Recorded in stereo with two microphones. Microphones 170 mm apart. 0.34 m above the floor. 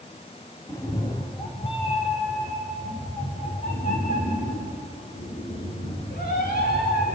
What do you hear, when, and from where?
0.7 s a cat meowing: 15° left (ahead or behind), 1.9 m; by 7.2 s 60° left (ahead or behind), 7 m